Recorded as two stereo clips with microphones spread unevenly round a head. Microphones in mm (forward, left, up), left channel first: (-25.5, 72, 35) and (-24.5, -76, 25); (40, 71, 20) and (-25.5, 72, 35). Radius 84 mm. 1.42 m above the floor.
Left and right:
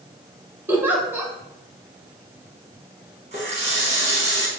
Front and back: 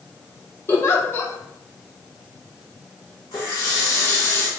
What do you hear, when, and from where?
0.7 s a giggle: 20° right, 0.6 m
3.3 s a running tap: 45° right, 0.7 m